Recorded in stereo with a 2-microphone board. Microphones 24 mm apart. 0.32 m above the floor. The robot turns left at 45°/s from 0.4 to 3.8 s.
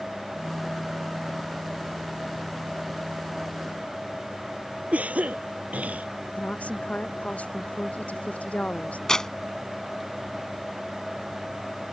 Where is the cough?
80° right.